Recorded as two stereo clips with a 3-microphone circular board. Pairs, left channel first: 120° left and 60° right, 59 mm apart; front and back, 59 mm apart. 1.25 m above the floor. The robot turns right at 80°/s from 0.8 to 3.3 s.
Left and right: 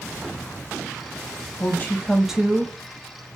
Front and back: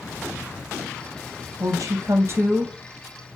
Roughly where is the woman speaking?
Behind.